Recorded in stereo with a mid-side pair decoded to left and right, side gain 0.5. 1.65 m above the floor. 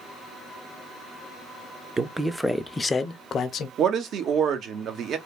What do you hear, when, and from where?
2.0 s a man speaking: 25° right, 0.6 m; by 3.7 s 60° left, 0.7 m
3.8 s a man speaking: 60° right, 0.8 m